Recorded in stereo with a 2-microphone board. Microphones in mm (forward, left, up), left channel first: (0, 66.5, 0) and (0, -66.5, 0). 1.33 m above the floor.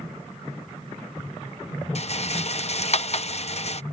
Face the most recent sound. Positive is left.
turn(degrees=55)  # may be behind; listen again after turning